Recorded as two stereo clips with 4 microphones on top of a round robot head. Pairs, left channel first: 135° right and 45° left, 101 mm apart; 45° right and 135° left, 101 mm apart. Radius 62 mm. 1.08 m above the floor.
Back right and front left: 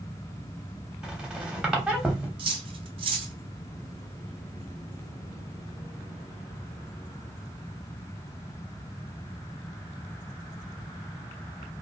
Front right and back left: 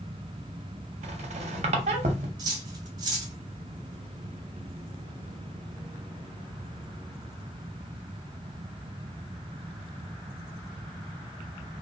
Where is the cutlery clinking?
80° left, 0.7 m.